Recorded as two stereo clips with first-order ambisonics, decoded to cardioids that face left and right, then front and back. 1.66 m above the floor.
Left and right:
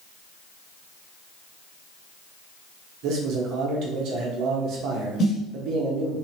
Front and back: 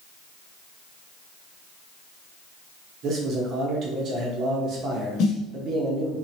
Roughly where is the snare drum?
Ahead left.